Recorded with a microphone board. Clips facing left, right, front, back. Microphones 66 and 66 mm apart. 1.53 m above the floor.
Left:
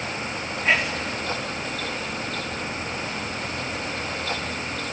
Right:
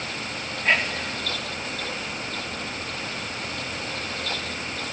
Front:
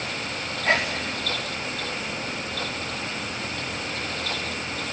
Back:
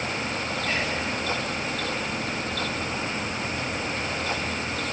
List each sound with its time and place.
0.7 s whispering: 5° left, 4.5 m